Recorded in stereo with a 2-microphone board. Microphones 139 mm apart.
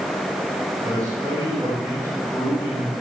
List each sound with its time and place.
0.8 s a man speaking: 25° right (ahead or behind), 6.5 m